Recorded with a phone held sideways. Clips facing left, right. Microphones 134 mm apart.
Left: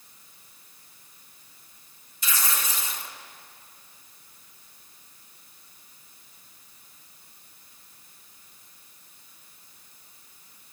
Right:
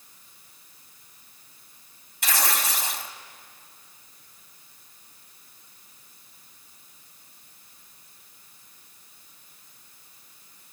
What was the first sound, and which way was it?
Tearing paper, 65° right (ahead or behind).